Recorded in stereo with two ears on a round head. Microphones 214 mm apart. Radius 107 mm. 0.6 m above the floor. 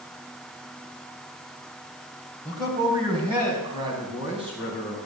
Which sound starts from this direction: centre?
A man speaking, at 2.5 s.